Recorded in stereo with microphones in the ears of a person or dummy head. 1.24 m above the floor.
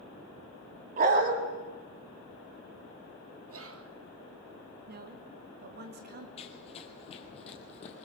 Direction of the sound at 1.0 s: 50° right (ahead or behind).